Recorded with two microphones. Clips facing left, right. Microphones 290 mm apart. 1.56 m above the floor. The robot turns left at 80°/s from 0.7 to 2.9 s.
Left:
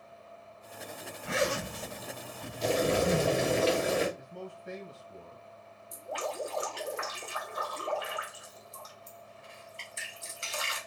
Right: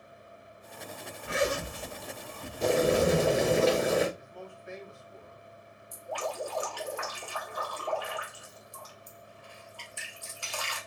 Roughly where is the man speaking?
Left.